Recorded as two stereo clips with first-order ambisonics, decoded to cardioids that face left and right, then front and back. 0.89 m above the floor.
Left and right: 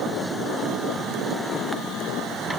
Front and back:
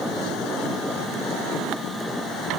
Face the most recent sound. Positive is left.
No sound to turn to.